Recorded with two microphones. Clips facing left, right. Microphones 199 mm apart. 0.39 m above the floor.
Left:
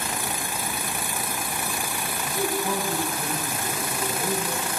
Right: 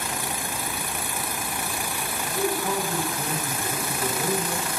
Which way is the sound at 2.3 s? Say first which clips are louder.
Right 1 dB; 15° right (ahead or behind).